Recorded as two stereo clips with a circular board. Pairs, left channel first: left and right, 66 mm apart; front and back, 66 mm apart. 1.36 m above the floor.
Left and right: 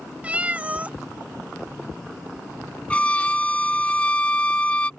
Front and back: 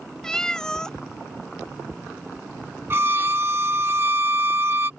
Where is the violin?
150° left.